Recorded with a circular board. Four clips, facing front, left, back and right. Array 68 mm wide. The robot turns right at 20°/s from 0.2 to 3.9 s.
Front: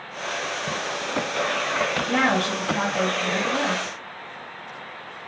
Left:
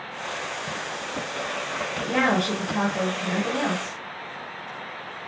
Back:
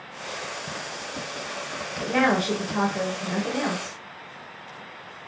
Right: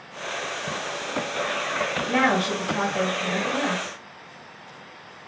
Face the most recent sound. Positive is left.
turn(degrees=15)